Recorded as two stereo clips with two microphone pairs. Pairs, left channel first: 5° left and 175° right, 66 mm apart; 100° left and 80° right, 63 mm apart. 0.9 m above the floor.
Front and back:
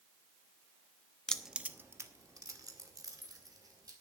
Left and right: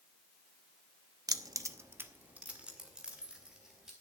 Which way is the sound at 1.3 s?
70° right.